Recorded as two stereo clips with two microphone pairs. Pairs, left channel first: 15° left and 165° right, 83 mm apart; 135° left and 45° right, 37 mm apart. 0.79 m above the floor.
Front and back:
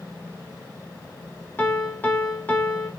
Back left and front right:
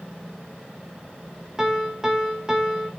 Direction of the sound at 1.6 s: Straight ahead.